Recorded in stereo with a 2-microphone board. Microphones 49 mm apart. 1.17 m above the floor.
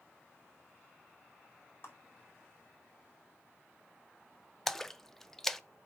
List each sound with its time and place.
1.8 s a clap: 50° left (ahead or behind), 4 m
4.7 s a splash: 5° left (ahead or behind), 0.5 m